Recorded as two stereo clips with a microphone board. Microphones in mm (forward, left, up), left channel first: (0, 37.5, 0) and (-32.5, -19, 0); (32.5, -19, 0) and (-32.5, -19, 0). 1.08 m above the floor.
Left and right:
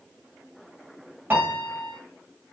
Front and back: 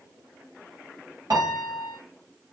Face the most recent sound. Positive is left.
turn(degrees=180)